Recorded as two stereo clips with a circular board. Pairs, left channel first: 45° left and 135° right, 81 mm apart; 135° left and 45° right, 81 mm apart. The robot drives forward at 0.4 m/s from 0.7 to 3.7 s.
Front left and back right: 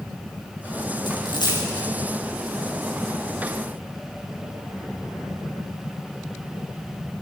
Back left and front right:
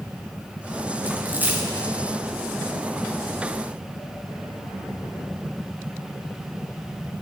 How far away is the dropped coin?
About 7.5 m.